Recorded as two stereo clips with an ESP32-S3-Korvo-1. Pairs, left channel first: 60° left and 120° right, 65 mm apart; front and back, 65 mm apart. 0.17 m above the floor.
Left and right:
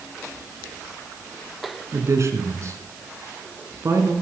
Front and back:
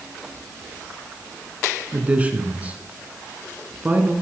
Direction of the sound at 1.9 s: 120° right.